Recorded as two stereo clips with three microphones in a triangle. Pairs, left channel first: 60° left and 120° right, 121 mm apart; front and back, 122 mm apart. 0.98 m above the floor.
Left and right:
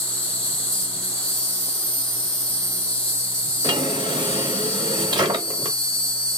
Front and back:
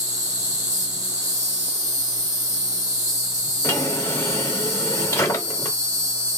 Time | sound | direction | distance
0.0 | an insect | 140° left | 1.9 m
3.6 | a drawer | 65° right | 0.8 m